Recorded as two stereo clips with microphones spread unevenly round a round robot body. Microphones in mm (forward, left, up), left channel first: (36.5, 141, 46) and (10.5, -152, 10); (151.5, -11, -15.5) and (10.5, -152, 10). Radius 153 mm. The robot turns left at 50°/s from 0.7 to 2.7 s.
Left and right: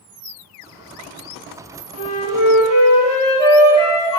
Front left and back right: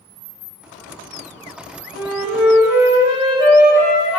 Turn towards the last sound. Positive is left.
turn(degrees=15)